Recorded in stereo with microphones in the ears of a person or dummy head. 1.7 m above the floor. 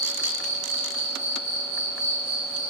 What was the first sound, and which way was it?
An insect, 35° right (ahead or behind).